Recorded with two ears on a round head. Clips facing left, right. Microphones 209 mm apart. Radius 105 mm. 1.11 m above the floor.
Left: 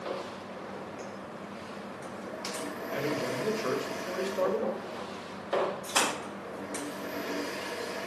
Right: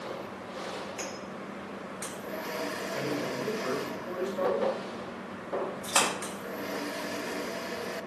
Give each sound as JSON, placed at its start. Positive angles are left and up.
{"t": 2.9, "sound": "a man speaking", "side_deg": 25, "distance_m": 2.0}
{"t": 5.8, "sound": "a splash", "side_deg": -70, "distance_m": 4.0}